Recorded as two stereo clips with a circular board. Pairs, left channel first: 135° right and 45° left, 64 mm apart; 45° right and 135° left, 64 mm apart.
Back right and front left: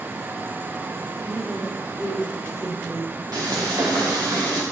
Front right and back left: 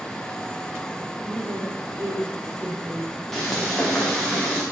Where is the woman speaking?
105° left, 4.5 m; by 3.2 s 90° left, 5 m.